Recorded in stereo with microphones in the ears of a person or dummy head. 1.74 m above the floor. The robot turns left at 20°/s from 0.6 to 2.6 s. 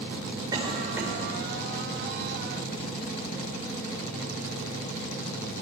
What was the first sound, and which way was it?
A cough, 15° right (ahead or behind).